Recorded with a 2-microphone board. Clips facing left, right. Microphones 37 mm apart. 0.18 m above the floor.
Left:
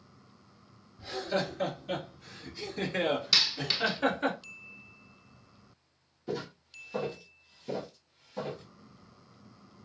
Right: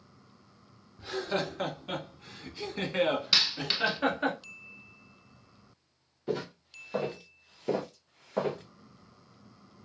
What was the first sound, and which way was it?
Laughter, 45° right (ahead or behind).